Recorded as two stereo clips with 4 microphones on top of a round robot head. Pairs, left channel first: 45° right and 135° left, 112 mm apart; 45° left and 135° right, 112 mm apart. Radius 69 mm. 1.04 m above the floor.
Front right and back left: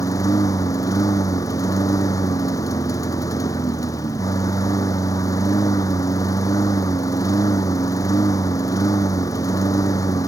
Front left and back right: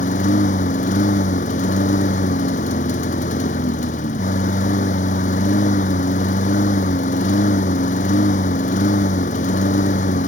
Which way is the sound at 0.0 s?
20° left.